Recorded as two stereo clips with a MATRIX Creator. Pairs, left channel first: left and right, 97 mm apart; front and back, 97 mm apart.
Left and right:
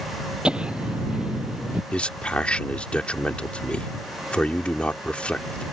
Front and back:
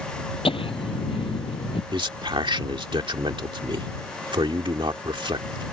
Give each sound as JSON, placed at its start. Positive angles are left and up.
{"t": 0.5, "sound": "laughter", "azimuth_deg": -10}
{"t": 1.9, "sound": "a man speaking", "azimuth_deg": 165}